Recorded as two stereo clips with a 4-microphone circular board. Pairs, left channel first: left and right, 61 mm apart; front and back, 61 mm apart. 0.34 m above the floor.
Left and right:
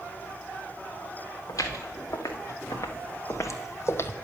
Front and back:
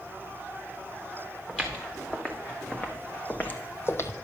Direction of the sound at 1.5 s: 80° left.